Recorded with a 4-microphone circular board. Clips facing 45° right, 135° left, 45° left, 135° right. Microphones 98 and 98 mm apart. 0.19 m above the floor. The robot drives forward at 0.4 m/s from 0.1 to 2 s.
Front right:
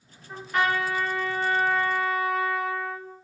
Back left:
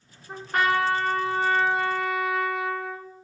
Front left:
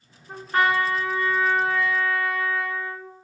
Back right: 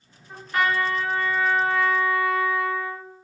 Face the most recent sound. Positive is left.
turn(degrees=140)